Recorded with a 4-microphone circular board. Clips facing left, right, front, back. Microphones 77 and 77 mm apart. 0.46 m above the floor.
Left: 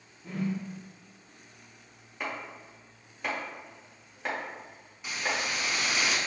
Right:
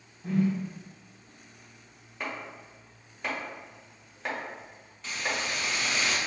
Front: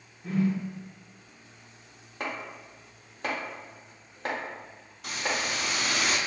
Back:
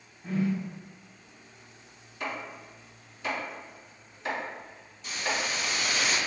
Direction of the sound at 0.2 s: 90° right.